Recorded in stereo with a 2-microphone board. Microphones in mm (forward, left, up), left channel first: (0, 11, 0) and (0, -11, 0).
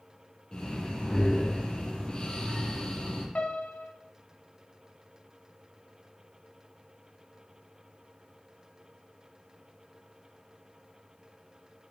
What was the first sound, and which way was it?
Breathing, 35° left (ahead or behind).